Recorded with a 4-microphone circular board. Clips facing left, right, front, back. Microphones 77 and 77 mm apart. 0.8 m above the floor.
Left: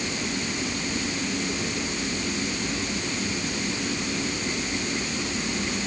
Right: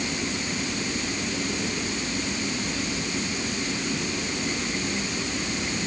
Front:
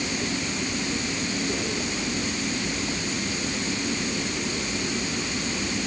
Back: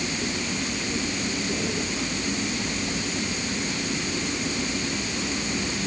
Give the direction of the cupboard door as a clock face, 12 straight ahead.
No cupboard door in this recording.